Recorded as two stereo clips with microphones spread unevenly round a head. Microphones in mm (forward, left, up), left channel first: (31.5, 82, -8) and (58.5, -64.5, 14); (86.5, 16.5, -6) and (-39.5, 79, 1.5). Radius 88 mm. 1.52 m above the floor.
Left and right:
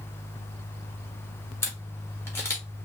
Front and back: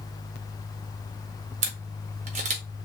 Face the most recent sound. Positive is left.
turn(degrees=180)